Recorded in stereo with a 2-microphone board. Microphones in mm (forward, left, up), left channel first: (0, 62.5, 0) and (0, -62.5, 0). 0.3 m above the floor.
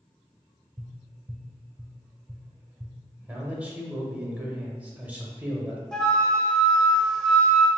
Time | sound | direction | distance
0.8 | tapping | 20° right (ahead or behind) | 0.8 m
3.2 | a man speaking | 10° right (ahead or behind) | 0.9 m
5.9 | a flute | 5° left (ahead or behind) | 0.6 m